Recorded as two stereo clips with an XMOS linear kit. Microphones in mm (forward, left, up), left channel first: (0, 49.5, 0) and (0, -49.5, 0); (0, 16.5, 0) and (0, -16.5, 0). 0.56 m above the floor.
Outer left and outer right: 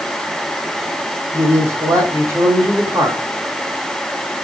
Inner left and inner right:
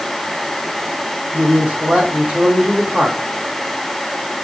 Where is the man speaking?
35° right (ahead or behind), 2.5 m.